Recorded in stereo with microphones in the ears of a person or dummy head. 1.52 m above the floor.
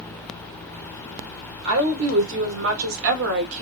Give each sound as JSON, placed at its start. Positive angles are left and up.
{"t": 1.6, "sound": "a woman speaking", "side_deg": -70, "distance_m": 2.0}